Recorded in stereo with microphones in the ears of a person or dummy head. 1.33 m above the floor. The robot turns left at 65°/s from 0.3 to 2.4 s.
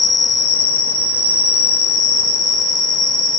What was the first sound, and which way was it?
An insect, 40° right.